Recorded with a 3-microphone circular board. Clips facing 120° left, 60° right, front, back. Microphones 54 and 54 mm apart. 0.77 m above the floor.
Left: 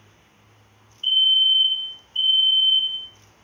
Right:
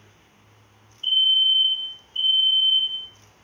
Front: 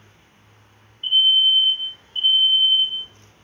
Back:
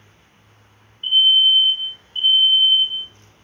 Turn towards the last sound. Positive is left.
turn(degrees=125)